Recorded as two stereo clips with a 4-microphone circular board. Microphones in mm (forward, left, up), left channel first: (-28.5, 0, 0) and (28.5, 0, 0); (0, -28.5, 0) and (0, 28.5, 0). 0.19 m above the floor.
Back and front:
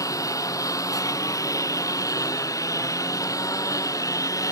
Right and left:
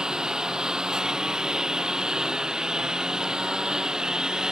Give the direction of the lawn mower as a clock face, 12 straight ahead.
6 o'clock.